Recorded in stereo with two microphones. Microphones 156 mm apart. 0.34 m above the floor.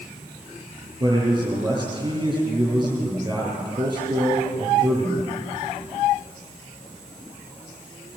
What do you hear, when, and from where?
1.0 s a man speaking: 30° right (ahead or behind), 6 m